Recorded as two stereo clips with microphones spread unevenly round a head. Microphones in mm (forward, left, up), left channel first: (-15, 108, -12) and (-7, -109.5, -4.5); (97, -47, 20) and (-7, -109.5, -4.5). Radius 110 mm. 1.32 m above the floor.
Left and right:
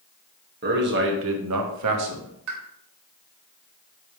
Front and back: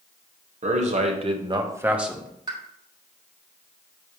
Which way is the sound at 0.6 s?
135° right.